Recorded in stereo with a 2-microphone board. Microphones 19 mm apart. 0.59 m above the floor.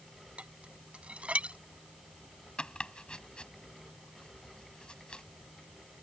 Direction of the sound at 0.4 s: 85° right.